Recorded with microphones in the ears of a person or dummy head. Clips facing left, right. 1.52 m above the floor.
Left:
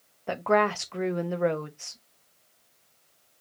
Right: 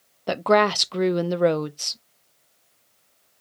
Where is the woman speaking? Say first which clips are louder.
Right 5 dB; 50° right (ahead or behind), 0.5 m.